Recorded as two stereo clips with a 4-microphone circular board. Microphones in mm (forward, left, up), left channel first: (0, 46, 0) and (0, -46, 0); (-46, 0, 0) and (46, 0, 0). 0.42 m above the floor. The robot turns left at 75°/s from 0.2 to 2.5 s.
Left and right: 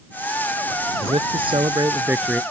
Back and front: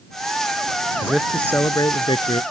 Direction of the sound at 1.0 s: 75° right.